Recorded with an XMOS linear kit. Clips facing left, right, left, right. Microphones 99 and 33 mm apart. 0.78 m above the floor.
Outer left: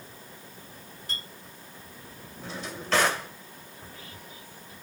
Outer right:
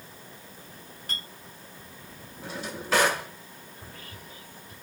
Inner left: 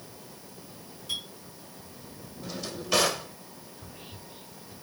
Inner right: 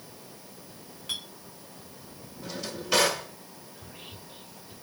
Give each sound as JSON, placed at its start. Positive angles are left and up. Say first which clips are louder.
{"t": 1.1, "sound": "a clink", "louder": "outer right 1 dB, inner left 1 dB", "side_deg": -55, "distance_m": 3.0}
{"t": 2.4, "sound": "a drawer", "louder": "outer right 2 dB, inner right 1 dB", "side_deg": -10, "distance_m": 1.8}
{"t": 3.8, "sound": "whispering", "louder": "even, inner right 2 dB", "side_deg": -55, "distance_m": 1.4}